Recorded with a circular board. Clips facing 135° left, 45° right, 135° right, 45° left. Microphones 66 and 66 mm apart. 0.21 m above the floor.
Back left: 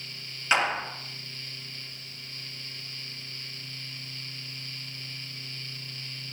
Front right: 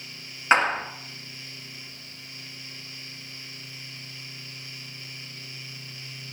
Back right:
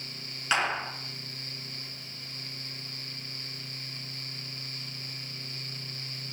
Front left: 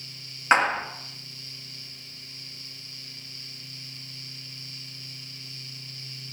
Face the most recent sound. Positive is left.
turn(degrees=-5)